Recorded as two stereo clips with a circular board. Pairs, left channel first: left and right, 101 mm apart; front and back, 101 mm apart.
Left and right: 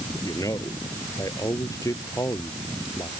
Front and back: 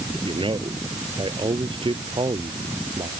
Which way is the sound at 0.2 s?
145° left.